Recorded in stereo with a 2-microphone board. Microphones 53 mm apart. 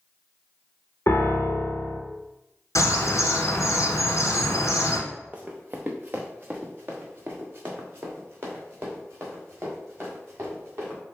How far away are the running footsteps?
About 0.7 m.